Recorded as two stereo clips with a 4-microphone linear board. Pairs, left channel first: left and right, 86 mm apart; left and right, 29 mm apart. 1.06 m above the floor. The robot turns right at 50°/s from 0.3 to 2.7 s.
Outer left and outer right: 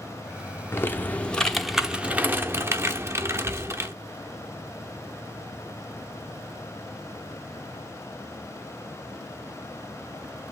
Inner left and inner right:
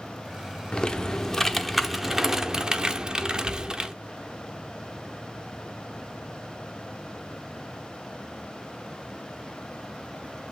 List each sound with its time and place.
0.7 s typing on a keyboard: 130° left, 0.7 m; by 3.9 s 130° right, 0.7 m